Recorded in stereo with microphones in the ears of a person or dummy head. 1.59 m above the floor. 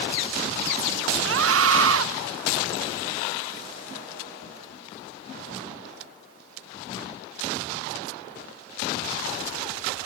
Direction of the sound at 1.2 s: 90° right.